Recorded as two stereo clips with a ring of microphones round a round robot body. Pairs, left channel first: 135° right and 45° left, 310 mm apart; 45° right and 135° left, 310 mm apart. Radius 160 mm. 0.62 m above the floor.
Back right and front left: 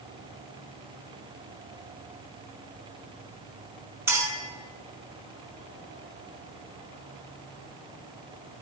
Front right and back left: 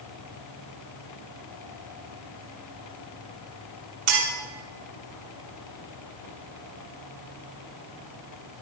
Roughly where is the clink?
Behind left.